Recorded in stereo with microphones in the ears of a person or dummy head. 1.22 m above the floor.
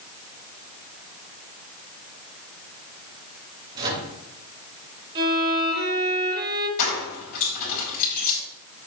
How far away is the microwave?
About 4.5 m.